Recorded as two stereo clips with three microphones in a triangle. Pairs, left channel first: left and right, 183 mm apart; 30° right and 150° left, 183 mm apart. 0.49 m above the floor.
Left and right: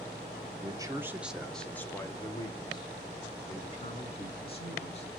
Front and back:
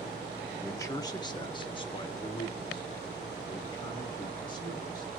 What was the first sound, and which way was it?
A man speaking, 85° right.